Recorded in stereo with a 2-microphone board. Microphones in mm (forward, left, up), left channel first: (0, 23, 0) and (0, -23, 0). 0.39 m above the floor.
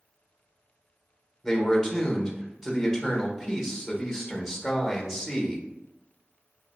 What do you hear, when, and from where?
1.4 s a man speaking: 5° right (ahead or behind), 1.0 m